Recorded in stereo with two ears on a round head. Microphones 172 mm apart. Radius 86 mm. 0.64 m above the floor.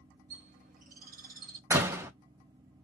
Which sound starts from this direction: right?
A bird, at 0.3 s.